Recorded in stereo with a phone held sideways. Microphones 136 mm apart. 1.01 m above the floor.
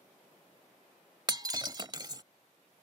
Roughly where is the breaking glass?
Right.